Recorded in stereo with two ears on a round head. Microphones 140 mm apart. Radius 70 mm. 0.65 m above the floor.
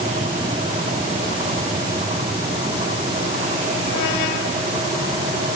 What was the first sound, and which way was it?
Only background noise.